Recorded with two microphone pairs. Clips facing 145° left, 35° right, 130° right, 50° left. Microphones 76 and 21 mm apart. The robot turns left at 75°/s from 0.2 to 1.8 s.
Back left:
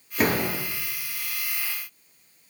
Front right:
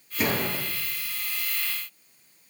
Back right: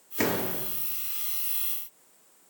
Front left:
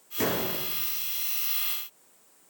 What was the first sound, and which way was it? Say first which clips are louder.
A door slam: back left 3 dB, even; 165° left.